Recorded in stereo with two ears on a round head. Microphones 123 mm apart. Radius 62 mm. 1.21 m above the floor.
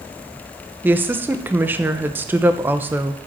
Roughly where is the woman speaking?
Centre.